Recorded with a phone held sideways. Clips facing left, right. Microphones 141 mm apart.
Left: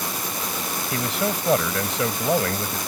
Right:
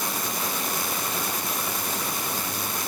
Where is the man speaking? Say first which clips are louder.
Left 6 dB; 80° left.